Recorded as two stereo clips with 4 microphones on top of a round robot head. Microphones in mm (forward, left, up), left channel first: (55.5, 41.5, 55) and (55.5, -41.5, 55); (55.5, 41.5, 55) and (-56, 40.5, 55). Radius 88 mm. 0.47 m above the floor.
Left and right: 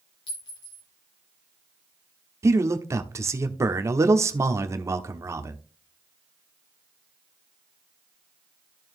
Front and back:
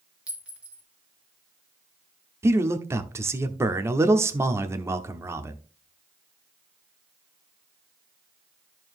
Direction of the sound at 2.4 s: 125° right.